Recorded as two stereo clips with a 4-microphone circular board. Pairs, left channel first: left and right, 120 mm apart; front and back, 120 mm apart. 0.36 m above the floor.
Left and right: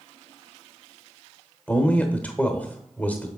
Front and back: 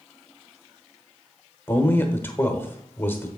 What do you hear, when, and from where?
1.7 s a man speaking: 35° left, 1.0 m